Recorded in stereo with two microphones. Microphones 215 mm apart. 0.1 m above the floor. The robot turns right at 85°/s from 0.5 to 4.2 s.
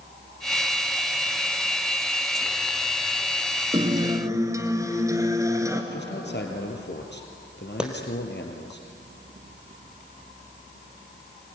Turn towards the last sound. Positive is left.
turn(degrees=-5)  # may be behind; listen again after turning